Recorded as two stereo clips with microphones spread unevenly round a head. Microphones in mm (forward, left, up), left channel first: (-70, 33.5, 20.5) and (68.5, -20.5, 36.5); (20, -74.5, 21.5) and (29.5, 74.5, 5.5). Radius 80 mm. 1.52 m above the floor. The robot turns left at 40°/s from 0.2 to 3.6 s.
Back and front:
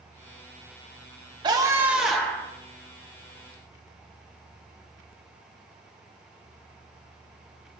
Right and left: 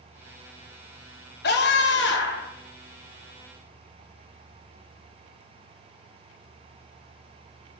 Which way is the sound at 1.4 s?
85° right.